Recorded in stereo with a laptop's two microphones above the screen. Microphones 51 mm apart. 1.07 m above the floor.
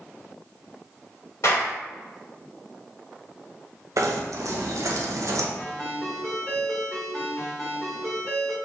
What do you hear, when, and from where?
1.4 s a clap: 70° left (ahead or behind), 1.9 m
4.0 s knocking: 75° right (ahead or behind), 0.6 m
5.6 s a ringtone: 15° left (ahead or behind), 1.9 m